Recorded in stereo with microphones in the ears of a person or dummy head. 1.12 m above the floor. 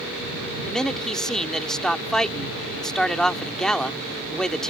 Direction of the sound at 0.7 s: 5° left (ahead or behind).